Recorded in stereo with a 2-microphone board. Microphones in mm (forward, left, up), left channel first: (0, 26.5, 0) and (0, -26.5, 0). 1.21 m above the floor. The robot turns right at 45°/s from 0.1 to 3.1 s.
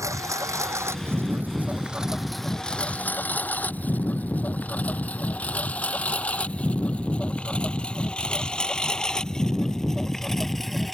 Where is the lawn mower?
85° right; by 10.9 s centre (ahead or behind).